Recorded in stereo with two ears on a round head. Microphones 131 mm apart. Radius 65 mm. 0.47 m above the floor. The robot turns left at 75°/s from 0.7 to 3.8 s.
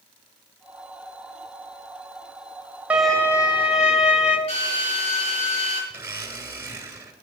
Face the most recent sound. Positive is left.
turn(degrees=-15)  # may be behind; listen again after turning